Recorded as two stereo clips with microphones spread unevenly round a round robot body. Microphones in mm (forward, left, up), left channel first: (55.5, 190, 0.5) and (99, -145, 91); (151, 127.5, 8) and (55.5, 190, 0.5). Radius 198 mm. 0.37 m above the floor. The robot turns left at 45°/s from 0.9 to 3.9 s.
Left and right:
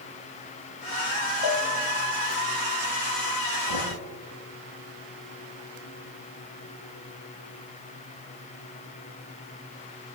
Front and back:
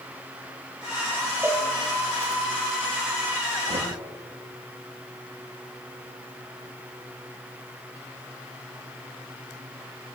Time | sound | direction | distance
1.4 | a cowbell | 75° left | 5.5 m
3.7 | knocking | 125° left | 9 m